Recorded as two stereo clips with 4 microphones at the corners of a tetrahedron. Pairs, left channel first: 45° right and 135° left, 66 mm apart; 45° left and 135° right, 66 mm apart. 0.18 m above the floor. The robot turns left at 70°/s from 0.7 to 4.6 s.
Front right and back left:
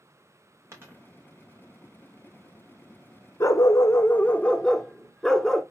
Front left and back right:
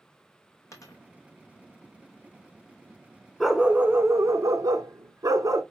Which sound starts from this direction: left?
A dropped coin, at 0.7 s.